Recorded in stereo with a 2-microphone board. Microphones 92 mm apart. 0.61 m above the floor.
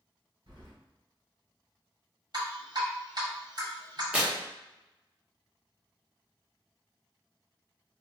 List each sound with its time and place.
0.5 s keys jangling: 75° right (ahead or behind), 1.5 m
2.3 s dripping: 50° right (ahead or behind), 1.6 m
4.1 s tearing paper: 15° right (ahead or behind), 0.7 m